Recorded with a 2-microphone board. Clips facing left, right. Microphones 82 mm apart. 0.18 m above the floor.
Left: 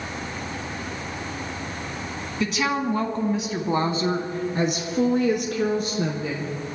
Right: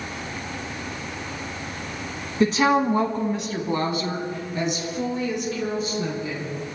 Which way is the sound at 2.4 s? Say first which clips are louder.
Right 6 dB; 40° right (ahead or behind).